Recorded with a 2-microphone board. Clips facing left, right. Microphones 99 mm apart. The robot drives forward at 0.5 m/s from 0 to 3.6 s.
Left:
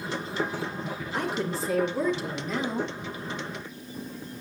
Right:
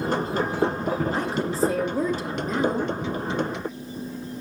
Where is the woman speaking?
35° right (ahead or behind), 3.5 m; by 3.0 s 45° right (ahead or behind), 3 m.